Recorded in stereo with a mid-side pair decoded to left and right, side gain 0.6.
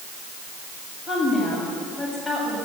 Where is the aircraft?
I don't hear an aircraft.